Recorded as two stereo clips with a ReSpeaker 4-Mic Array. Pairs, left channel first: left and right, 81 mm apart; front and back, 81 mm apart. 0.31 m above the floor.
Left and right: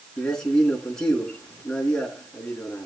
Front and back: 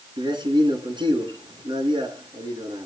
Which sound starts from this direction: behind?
A man speaking, at 0.2 s.